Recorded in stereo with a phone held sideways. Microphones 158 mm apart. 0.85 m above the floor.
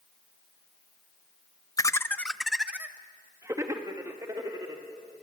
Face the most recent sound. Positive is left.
turn(degrees=-25)  # may be behind; listen again after turning